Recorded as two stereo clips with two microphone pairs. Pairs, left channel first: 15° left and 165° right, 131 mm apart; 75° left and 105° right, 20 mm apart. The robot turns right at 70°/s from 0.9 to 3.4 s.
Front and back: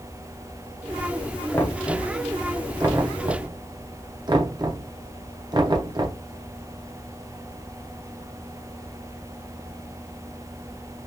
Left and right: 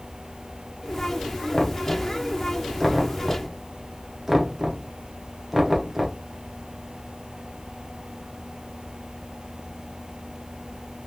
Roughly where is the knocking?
Ahead left.